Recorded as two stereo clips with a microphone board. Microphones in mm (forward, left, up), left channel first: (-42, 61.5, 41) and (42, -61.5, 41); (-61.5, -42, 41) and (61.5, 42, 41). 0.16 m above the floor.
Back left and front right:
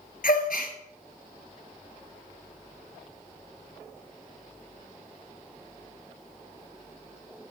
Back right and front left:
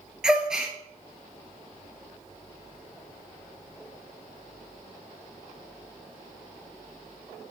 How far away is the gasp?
About 1.1 m.